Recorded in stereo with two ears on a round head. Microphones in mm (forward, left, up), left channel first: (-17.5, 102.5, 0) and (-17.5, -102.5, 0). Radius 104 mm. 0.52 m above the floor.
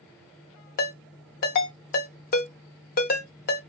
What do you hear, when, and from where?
0.8 s a ringtone: 35° left (ahead or behind), 0.8 m